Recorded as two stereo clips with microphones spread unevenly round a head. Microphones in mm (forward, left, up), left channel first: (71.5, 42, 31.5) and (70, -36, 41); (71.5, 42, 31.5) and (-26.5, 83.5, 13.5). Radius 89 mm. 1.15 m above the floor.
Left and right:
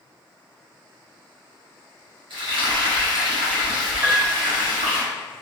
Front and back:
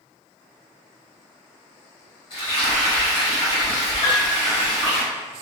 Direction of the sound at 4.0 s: 25° right.